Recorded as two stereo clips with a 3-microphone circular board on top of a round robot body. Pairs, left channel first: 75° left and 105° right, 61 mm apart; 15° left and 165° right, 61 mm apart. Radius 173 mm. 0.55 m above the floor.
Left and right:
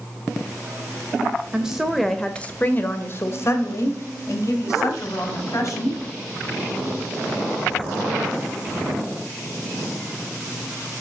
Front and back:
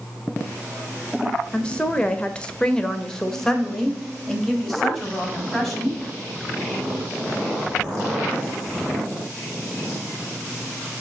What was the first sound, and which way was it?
A woman speaking, 40° right.